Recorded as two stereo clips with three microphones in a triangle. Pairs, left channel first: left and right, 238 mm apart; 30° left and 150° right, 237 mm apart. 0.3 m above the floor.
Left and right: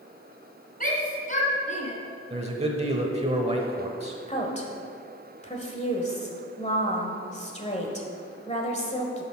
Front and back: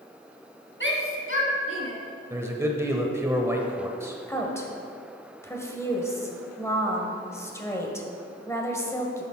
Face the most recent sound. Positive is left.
turn(degrees=95)